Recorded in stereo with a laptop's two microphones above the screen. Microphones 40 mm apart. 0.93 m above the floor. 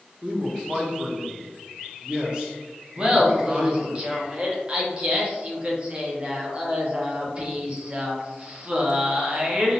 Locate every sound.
0.2 s a man speaking: 30° right (ahead or behind), 0.7 m
3.0 s laughter: 30° right (ahead or behind), 0.8 m